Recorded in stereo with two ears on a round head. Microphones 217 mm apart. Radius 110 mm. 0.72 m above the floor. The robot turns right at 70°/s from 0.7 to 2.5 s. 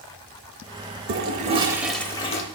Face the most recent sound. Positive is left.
turn(degrees=40)